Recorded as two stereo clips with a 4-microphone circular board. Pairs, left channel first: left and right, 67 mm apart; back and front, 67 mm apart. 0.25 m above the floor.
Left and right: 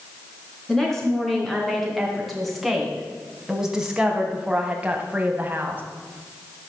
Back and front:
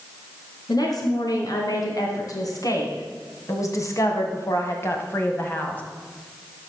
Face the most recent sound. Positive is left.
turn(degrees=-135)